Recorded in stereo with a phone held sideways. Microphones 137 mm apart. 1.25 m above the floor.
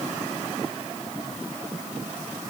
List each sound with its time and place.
Only background noise.